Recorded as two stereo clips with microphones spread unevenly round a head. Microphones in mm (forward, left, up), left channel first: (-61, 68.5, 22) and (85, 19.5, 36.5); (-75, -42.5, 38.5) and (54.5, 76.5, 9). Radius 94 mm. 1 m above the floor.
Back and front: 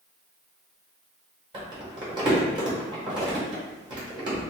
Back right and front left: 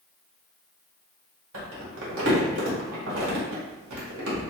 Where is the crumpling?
40° left, 1.6 m.